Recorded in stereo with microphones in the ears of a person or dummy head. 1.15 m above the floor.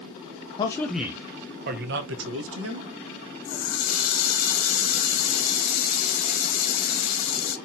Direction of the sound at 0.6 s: 25° left (ahead or behind).